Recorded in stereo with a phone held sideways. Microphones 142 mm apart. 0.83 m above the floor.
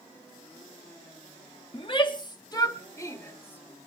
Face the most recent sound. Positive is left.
turn(degrees=15)  # may be behind; listen again after turning